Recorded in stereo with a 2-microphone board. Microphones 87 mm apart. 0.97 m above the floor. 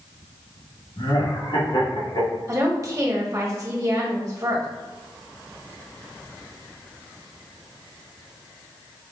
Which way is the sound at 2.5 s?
40° right (ahead or behind).